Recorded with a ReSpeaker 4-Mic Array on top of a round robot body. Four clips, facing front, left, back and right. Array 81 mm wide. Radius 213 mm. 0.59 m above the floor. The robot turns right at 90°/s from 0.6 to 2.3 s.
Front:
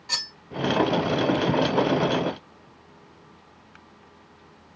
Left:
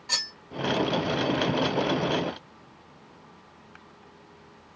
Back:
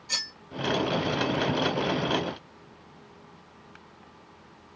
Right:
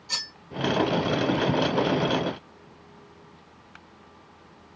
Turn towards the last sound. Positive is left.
turn(degrees=-160)